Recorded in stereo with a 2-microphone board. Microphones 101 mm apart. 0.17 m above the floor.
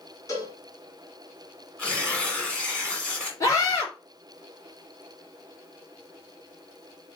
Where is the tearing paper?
10° left (ahead or behind), 1.8 m.